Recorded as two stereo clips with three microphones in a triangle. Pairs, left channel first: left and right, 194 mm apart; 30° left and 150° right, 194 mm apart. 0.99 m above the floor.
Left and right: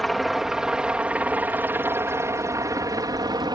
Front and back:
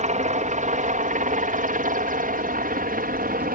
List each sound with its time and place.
0.0 s a helicopter: straight behind; by 3.5 s 150° right